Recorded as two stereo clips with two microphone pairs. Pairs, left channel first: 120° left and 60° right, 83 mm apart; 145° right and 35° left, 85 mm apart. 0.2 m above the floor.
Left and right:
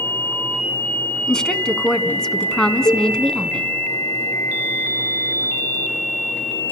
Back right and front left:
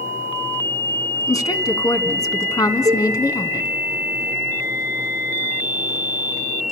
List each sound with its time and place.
1.3 s a woman speaking: 160° right, 1.9 m
2.9 s a cowbell: 80° left, 6 m